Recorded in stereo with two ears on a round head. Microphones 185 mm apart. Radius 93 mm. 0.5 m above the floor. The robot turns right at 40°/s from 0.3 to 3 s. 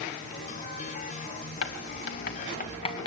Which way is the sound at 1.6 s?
75° left (ahead or behind).